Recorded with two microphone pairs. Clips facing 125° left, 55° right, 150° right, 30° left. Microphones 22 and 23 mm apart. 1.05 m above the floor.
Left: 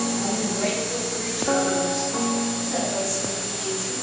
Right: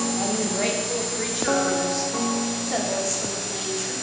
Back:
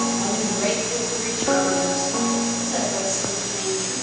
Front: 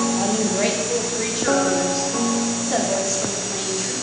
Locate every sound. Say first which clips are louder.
0.2 s a woman speaking: even, front 3 dB; 5° right, 2.5 m